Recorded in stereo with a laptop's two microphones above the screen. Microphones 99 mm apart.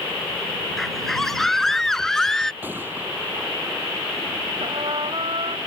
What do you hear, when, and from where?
0.8 s a scream: 5° left (ahead or behind)
2.6 s a gunshot: 20° right (ahead or behind)
4.6 s a trumpet: 65° right (ahead or behind)